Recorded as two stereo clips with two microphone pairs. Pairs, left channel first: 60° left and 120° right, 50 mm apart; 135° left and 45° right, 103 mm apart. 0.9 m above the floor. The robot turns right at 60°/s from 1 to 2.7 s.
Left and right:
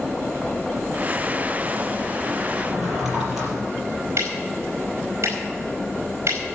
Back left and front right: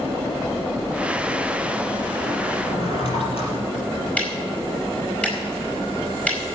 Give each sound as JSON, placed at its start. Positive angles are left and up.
{"t": 2.6, "sound": "a drawer", "azimuth_deg": 150, "distance_m": 5.0}
{"t": 4.2, "sound": "ticking", "azimuth_deg": -150, "distance_m": 4.5}